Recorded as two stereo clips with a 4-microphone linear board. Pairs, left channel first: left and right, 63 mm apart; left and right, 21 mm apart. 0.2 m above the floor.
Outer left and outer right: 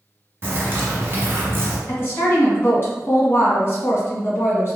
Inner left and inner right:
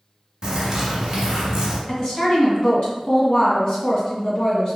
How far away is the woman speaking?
About 1.4 m.